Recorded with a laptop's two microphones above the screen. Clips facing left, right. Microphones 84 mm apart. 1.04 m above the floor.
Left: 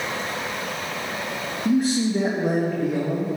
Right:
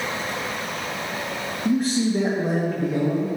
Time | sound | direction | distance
1.6 | a man speaking | 5° left (ahead or behind) | 1.2 m